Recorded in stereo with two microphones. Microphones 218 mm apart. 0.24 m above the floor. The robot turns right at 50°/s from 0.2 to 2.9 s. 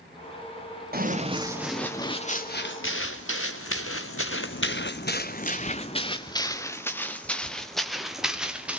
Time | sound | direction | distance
0.9 | running footsteps | 45° right (ahead or behind) | 2.5 m